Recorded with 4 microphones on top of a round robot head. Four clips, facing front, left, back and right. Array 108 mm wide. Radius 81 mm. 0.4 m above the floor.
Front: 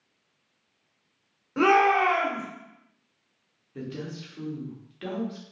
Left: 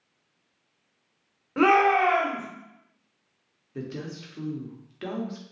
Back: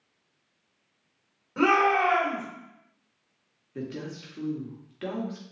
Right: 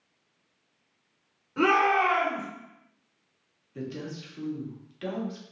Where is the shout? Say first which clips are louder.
Left 3 dB, front 2 dB; 65° left, 1.7 m.